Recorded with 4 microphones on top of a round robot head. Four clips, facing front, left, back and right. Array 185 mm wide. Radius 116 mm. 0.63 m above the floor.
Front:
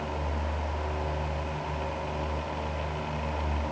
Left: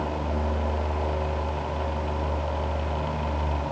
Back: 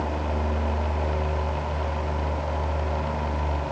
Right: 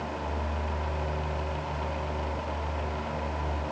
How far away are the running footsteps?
No running footsteps in this recording.